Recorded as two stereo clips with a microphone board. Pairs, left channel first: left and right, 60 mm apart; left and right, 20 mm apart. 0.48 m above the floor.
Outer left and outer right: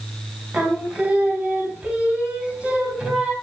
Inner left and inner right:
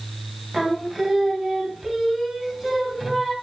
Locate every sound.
0.5 s singing: 20° right (ahead or behind), 3 m